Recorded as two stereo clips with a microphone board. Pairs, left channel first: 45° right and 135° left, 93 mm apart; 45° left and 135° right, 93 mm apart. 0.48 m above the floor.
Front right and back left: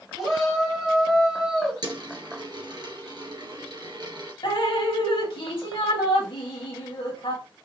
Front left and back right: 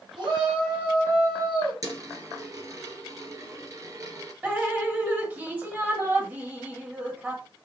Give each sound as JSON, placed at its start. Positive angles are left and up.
{"t": 0.2, "sound": "a shout", "azimuth_deg": -140, "distance_m": 3.0}
{"t": 1.8, "sound": "a dropped coin", "azimuth_deg": 175, "distance_m": 2.0}
{"t": 4.4, "sound": "dripping", "azimuth_deg": -65, "distance_m": 1.1}